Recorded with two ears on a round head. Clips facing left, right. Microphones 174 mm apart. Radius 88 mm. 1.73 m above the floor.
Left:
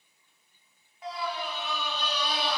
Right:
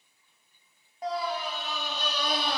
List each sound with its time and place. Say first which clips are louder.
1.0 s a scream: right 3 dB; 35° right (ahead or behind), 2.5 m; by 2.6 s 40° right (ahead or behind), 3 m